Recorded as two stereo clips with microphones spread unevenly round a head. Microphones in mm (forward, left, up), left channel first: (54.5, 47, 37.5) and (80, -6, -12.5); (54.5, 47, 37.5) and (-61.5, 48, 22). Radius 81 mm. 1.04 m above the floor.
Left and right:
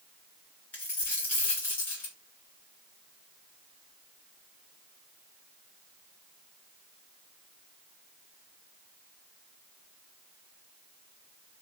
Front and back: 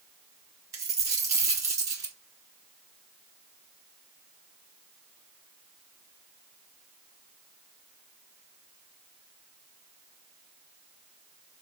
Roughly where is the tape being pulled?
No tape being pulled in this recording.